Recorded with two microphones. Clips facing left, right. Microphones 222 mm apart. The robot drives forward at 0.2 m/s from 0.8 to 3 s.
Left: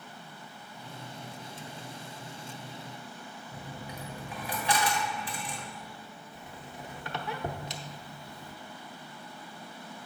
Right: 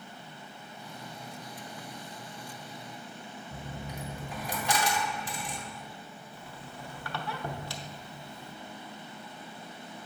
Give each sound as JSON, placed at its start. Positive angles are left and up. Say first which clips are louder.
{"t": 3.5, "sound": "a dropped coin", "louder": "right 2 dB", "side_deg": -45, "distance_m": 1.7}
{"t": 6.3, "sound": "a squeak", "louder": "left 1 dB", "side_deg": 20, "distance_m": 0.6}